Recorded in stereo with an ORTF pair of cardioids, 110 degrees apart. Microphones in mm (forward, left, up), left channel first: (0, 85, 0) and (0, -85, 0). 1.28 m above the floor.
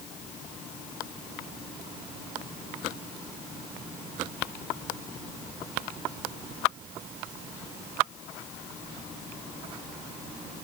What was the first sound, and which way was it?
Only background noise.